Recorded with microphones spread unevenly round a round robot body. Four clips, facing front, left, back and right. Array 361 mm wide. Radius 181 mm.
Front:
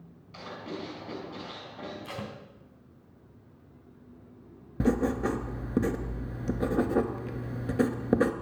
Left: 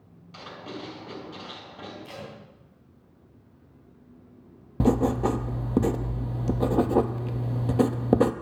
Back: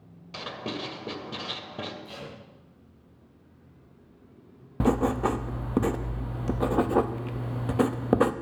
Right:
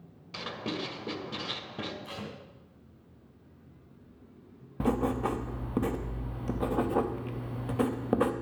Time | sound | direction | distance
0.3 | writing | 145° right | 2 m
2.0 | tape being pulled | 15° right | 3 m
4.8 | writing | 100° left | 0.7 m